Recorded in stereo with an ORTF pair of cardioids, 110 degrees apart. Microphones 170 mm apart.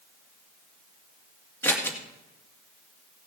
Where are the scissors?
15° left, 2 m.